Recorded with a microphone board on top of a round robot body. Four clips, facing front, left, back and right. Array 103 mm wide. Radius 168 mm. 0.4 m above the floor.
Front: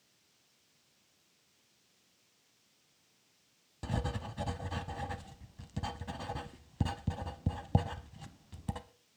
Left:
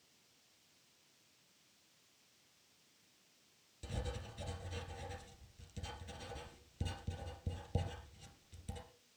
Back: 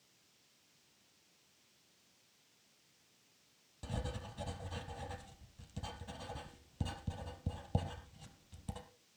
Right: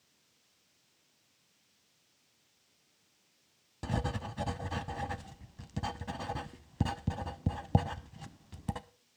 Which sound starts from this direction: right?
Writing, at 3.8 s.